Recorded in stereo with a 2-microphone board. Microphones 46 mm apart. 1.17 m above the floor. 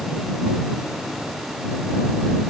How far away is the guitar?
No guitar in this recording.